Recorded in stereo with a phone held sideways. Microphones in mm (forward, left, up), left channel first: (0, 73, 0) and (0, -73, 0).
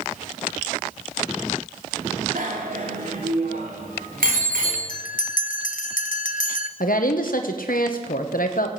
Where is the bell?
65° left (ahead or behind), 0.8 m.